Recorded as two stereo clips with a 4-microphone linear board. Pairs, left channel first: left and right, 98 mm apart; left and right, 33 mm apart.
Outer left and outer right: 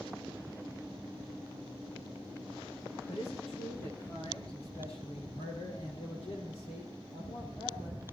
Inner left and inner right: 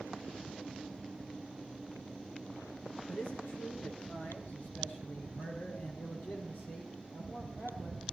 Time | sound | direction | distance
3.1 | a man speaking | 65° left (ahead or behind) | 3.5 m